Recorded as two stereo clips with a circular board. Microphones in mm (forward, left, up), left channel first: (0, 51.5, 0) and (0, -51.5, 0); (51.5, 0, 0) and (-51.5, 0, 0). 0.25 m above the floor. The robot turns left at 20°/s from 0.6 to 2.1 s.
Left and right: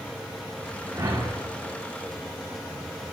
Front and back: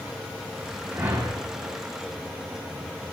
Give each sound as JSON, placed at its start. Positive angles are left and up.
{"t": 0.9, "sound": "a whoosh", "azimuth_deg": -120, "distance_m": 0.8}